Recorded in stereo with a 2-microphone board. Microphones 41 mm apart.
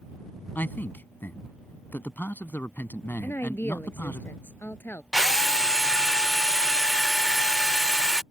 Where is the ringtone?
I don't hear a ringtone.